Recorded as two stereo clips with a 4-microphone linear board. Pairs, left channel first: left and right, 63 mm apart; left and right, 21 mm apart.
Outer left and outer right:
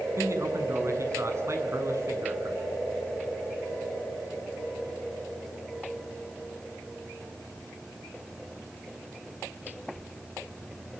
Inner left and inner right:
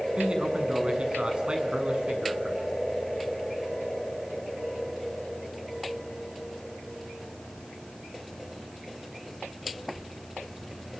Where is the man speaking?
50° right (ahead or behind), 7 m.